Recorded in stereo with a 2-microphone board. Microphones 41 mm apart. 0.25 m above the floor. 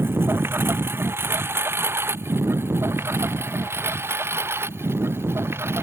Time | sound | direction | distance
0.0 | a lawn mower | 70° right (ahead or behind) | ?